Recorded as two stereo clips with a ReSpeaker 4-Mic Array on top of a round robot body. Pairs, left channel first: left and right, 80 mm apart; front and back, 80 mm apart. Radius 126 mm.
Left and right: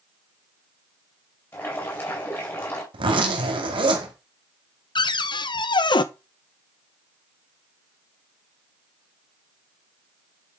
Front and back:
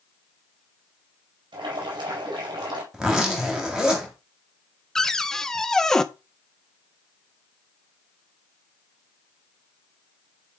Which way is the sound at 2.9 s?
95° right.